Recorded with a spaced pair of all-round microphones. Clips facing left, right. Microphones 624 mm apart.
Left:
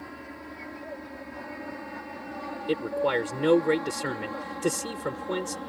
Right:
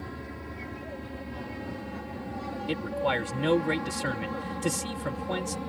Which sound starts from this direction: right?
An aircraft, at 0.0 s.